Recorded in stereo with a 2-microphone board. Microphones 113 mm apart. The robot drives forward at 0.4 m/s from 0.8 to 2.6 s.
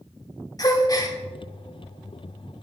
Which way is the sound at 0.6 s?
35° left (ahead or behind).